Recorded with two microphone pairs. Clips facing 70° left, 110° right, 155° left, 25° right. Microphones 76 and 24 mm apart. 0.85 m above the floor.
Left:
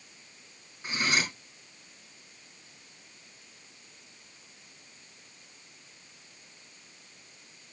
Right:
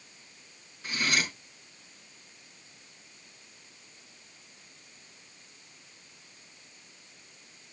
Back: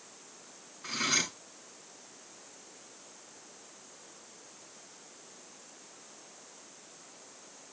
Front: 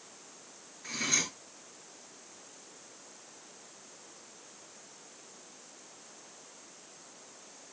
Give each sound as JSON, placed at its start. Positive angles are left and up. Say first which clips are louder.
{"t": 0.8, "sound": "cutlery clinking", "louder": "left 1 dB, back 2 dB", "azimuth_deg": 135, "distance_m": 5.0}